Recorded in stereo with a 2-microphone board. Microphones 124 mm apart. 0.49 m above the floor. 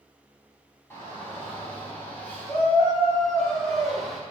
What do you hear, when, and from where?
0.9 s a shout: 20° left (ahead or behind), 4.5 m; by 4.2 s centre (ahead or behind), 3 m